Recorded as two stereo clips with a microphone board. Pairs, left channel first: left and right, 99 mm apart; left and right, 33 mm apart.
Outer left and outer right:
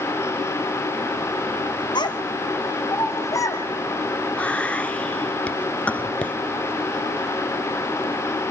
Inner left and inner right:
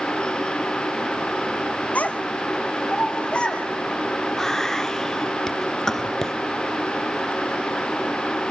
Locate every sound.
1.9 s a child speaking: 50° left (ahead or behind), 1.4 m; by 3.6 s 35° left (ahead or behind), 3.5 m
4.4 s whispering: 15° left (ahead or behind), 1.2 m